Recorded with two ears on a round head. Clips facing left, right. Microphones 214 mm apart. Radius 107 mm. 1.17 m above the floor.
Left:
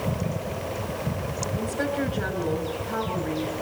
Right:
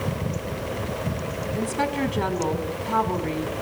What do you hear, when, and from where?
1.6 s a woman speaking: 70° right (ahead or behind), 4.5 m